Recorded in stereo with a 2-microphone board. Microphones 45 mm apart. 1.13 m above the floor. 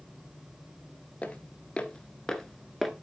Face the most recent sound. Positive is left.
turn(degrees=0)  # may be behind; listen again after turning